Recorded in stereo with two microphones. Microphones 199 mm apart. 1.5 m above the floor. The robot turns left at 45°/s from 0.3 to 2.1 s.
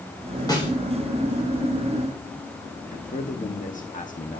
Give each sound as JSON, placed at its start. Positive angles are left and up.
{"t": 0.5, "sound": "a snare drum", "side_deg": 20, "distance_m": 3.0}
{"t": 2.9, "sound": "a man speaking", "side_deg": 40, "distance_m": 1.2}